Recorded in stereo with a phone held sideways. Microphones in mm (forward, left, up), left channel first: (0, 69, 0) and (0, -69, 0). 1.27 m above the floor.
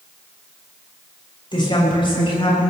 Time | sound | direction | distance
1.5 | a woman speaking | 35° left (ahead or behind) | 6.5 m